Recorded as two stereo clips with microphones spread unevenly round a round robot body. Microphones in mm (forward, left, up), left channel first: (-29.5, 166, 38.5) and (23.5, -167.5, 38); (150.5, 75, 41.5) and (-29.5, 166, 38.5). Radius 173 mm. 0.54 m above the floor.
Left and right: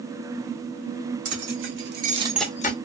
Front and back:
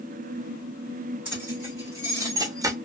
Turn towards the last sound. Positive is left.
turn(degrees=95)